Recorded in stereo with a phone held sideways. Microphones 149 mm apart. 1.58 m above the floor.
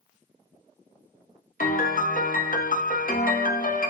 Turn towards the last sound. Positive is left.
turn(degrees=70)  # may be behind; listen again after turning